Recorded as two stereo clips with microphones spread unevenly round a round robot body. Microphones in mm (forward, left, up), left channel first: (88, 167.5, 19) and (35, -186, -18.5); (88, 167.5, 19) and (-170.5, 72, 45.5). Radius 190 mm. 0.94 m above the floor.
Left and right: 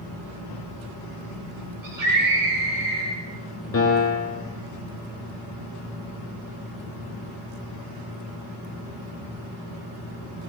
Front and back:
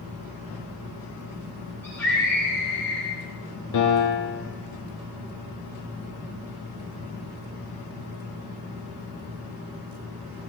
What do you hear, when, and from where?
1.8 s a scream: 65° right, 8.5 m
3.7 s a piano: 30° left, 5 m